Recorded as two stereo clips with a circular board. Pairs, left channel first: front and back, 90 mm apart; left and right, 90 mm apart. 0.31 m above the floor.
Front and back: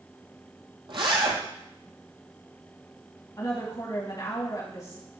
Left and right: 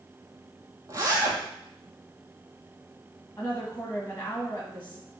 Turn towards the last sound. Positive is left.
turn(degrees=25)